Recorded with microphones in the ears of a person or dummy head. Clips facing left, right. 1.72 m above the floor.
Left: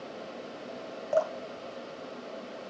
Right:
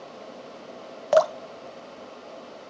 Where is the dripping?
80° right, 0.5 m.